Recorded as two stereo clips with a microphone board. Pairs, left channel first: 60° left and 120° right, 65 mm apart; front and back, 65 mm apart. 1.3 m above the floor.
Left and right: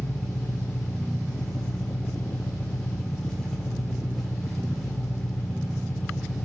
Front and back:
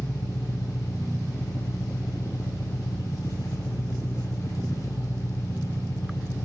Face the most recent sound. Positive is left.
turn(degrees=-30)